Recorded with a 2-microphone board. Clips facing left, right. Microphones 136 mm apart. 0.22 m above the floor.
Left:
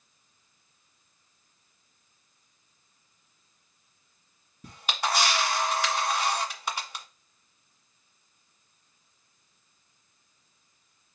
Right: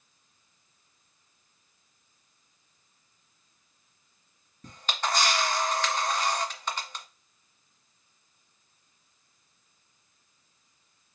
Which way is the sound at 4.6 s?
10° left (ahead or behind).